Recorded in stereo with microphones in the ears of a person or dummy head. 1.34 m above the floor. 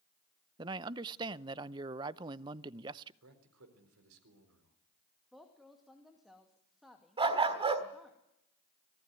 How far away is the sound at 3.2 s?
About 4 m.